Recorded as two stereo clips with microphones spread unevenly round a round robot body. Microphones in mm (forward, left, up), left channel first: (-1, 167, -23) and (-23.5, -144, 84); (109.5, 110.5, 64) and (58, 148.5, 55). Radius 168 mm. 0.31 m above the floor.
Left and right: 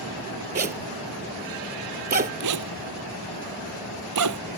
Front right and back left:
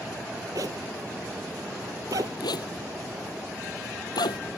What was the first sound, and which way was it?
A zipper, 155° right.